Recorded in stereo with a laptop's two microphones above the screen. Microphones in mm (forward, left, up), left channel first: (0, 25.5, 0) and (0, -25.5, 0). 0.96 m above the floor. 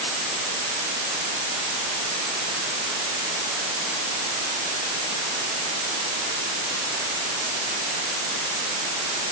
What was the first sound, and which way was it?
Only background noise.